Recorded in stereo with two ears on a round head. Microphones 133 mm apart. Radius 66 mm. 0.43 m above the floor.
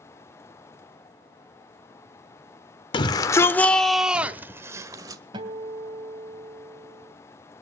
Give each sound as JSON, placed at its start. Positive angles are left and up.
{"t": 2.9, "sound": "a shout", "side_deg": 30, "distance_m": 0.9}
{"t": 5.3, "sound": "a guitar", "side_deg": -30, "distance_m": 2.5}